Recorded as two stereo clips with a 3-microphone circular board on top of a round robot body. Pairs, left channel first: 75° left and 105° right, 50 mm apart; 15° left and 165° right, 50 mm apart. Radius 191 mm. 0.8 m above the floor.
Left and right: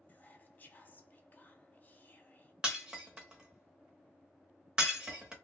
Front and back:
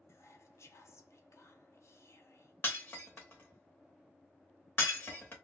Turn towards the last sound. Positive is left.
turn(degrees=-30)